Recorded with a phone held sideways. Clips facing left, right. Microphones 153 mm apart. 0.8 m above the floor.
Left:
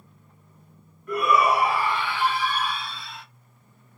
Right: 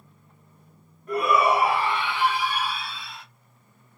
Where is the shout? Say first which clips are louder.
Even; 35° right (ahead or behind), 2 m; by 3.2 s centre (ahead or behind), 1.5 m.